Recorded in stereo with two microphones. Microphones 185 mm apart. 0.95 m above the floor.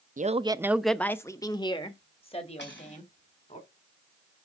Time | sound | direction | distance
0.2 | a man speaking | 45° right (ahead or behind) | 0.5 m
2.6 | cutlery clinking | 80° left | 3.5 m